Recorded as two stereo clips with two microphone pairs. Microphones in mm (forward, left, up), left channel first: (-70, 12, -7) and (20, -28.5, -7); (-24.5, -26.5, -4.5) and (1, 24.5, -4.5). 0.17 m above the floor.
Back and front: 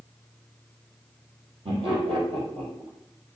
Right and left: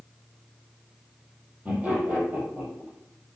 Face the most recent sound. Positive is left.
turn(degrees=0)